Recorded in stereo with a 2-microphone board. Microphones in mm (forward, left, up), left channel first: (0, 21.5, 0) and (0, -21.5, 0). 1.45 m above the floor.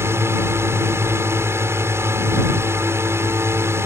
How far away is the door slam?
I don't hear a door slam.